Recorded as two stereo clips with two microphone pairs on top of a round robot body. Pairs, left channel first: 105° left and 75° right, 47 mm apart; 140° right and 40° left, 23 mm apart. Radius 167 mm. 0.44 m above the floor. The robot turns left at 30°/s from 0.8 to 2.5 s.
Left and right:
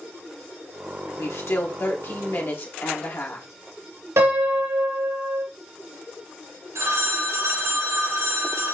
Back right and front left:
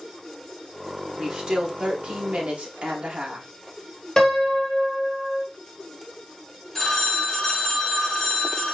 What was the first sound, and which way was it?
A woman speaking, 115° left.